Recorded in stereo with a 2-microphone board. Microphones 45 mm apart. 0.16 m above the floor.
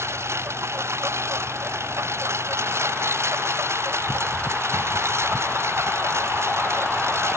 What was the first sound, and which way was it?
A lawn mower, 80° right.